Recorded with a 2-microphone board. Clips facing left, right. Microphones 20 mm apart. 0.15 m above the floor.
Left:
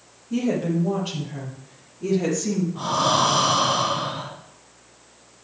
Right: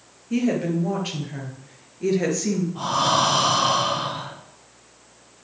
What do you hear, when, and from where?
0.3 s a woman speaking: 60° right (ahead or behind), 3 m; by 2.6 s 50° right (ahead or behind), 3 m
2.8 s breathing: 20° right (ahead or behind), 4.5 m